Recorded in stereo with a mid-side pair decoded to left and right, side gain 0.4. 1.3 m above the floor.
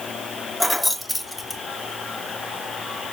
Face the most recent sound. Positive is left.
turn(degrees=10)